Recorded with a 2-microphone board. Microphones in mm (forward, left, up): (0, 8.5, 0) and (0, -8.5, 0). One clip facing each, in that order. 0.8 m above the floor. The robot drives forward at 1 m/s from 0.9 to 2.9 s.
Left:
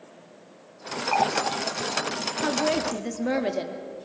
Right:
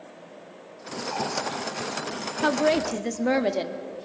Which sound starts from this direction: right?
A woman speaking, at 2.4 s.